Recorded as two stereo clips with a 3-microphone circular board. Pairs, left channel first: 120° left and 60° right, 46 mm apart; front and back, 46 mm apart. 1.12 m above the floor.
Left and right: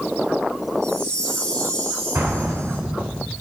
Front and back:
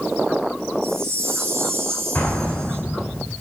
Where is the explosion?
40° right, 5.5 m.